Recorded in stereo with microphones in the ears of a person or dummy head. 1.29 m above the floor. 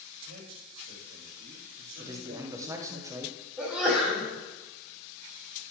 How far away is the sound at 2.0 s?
About 0.9 m.